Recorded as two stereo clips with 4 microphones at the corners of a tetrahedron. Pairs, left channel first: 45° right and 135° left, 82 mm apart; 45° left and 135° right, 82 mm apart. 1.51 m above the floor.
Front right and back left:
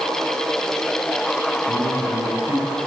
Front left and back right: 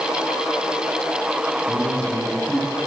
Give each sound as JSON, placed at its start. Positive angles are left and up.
{"t": 1.7, "sound": "a man speaking", "azimuth_deg": 125, "distance_m": 10.0}